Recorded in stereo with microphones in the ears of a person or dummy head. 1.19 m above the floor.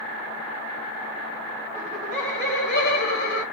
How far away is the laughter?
About 1.2 m.